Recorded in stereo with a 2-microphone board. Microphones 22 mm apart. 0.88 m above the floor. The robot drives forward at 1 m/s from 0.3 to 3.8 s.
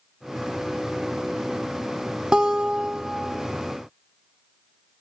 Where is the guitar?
35° right (ahead or behind), 1.3 m; by 3.5 s 20° right (ahead or behind), 2 m.